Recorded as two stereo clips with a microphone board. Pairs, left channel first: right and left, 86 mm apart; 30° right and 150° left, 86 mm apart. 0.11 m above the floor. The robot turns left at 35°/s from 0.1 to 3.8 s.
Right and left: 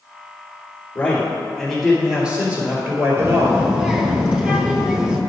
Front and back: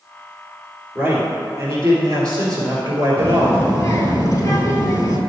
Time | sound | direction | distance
0.9 | a man speaking | 150° right | 2.5 m
3.2 | a child speaking | 35° left | 1.6 m